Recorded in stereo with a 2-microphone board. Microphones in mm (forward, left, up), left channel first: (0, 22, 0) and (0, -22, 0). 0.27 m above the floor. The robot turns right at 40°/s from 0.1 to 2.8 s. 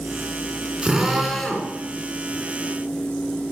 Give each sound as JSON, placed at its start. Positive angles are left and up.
{"t": 0.8, "sound": "a drill", "azimuth_deg": -20, "distance_m": 3.0}